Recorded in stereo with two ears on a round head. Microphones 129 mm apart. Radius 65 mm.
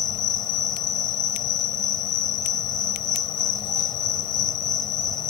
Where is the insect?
30° left (ahead or behind).